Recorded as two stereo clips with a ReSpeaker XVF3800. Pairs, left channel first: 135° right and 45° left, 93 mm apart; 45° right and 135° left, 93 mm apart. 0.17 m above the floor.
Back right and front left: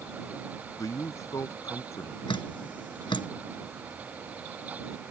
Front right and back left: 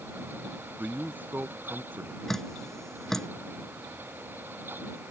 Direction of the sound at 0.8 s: 165° right.